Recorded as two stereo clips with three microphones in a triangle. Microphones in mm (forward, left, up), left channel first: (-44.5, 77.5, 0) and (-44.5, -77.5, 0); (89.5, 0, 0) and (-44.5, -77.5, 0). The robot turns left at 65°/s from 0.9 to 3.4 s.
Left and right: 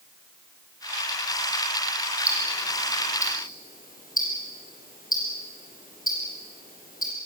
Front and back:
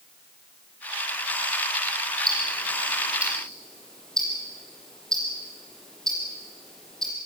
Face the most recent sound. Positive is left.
turn(degrees=115)